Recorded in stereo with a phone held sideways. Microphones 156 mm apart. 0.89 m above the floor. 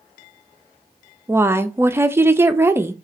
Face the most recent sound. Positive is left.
turn(degrees=-15)  # may be behind; listen again after turning